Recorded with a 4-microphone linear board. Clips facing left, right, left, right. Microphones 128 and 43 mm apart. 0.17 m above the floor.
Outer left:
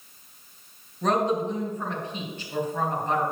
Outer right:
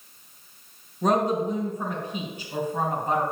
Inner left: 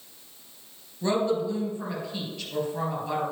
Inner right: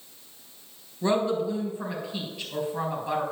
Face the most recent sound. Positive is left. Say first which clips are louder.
# outer right 1 dB, even
turn(degrees=-10)  # may be behind; listen again after turning